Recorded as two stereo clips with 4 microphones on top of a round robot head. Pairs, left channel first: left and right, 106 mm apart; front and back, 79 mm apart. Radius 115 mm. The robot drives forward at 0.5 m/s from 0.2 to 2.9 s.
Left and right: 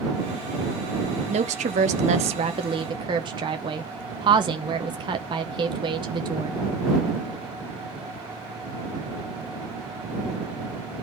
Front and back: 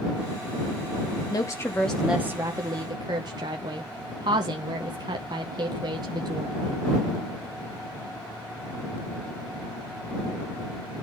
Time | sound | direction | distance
1.3 | a woman speaking | 55° right | 0.6 m